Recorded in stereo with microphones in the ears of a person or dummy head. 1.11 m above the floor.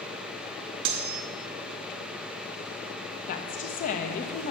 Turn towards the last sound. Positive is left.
turn(degrees=40)  # may be behind; listen again after turning